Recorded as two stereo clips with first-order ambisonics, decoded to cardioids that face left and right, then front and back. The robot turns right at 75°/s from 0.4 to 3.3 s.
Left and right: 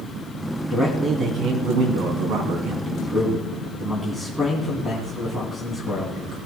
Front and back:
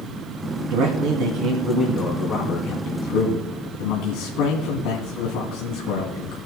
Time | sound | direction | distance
0.7 | a man speaking | 160° left | 2.5 m